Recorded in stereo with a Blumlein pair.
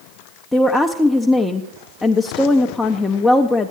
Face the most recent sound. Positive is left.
turn(degrees=5)